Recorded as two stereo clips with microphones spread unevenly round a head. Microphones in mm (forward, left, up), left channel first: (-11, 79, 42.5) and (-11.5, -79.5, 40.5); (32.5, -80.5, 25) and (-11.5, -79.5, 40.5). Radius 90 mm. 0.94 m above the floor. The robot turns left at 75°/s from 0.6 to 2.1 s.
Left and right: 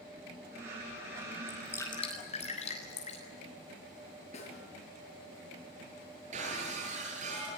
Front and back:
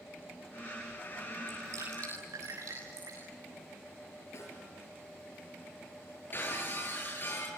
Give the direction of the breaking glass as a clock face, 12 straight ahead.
1 o'clock.